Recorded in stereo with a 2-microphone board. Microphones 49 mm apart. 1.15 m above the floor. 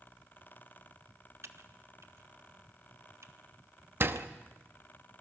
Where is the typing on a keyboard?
60° right (ahead or behind), 1.3 m.